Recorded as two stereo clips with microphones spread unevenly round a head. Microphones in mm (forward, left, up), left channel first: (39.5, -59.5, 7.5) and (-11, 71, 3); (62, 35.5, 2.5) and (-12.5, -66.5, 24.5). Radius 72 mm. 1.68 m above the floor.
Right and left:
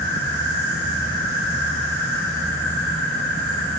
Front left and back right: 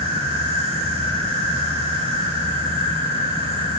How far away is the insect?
About 5 m.